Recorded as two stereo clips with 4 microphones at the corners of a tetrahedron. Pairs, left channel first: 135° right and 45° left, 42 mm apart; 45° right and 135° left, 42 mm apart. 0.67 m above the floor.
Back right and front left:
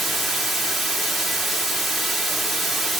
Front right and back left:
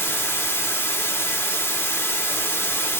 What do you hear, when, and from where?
0.0 s running water: 45° right, 1.2 m